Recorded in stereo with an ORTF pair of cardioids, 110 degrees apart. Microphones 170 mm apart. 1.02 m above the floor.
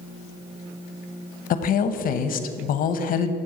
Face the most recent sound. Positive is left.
turn(degrees=60)